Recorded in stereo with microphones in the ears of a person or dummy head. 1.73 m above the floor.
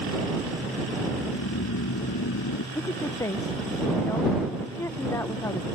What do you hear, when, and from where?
1.1 s snoring: 85° left
2.8 s a woman speaking: 15° left (ahead or behind)